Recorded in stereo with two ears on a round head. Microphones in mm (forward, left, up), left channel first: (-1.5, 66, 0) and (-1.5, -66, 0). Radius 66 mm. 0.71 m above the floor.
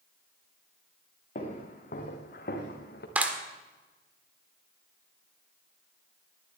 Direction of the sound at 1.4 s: 50° left (ahead or behind).